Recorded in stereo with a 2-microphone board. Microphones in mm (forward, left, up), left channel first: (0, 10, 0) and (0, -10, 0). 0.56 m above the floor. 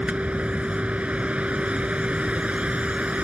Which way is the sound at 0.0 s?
85° right.